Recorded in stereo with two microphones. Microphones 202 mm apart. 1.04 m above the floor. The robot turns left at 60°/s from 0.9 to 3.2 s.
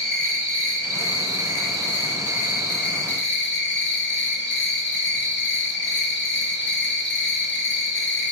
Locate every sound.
0.0 s an insect: 130° right, 1.9 m; by 8.3 s 90° left, 1.9 m